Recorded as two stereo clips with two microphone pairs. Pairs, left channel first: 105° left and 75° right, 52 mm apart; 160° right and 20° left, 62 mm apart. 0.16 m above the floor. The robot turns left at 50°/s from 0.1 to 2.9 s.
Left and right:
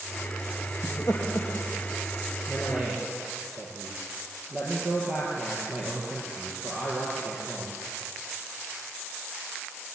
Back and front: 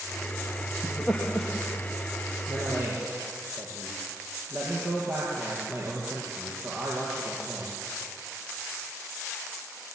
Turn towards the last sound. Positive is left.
turn(degrees=-15)